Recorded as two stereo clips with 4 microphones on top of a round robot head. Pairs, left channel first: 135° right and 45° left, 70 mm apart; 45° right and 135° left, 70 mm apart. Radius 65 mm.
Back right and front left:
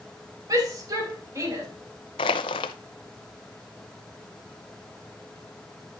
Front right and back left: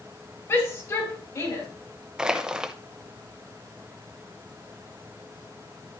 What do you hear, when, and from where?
0.5 s a shout: 10° left, 4 m; by 1.7 s straight ahead, 4 m
2.2 s crushing: 145° right, 0.5 m